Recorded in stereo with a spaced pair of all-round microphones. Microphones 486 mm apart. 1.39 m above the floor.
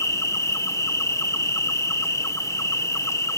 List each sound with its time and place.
0.0 s an insect: 5° left (ahead or behind)